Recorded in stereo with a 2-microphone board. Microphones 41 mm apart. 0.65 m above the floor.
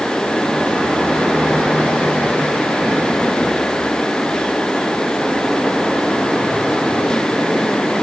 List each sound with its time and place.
Only background noise.